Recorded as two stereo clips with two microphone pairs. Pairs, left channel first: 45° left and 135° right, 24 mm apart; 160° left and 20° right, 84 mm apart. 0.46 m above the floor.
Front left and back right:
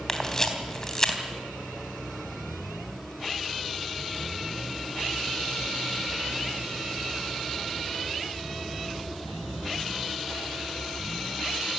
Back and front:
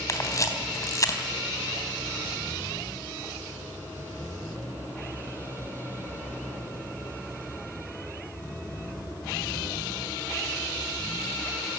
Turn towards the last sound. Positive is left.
turn(degrees=110)